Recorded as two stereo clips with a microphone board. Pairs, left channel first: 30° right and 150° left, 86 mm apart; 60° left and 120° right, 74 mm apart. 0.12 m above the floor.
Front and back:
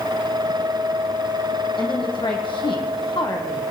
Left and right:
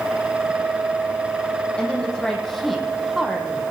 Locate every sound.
1.8 s a woman speaking: 15° right, 4.5 m; by 3.6 s 40° right, 3.5 m